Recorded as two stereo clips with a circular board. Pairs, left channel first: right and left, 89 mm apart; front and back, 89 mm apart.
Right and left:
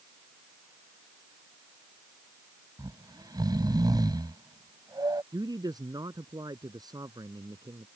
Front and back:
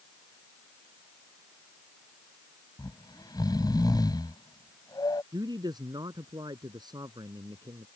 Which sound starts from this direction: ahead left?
Snoring, at 2.8 s.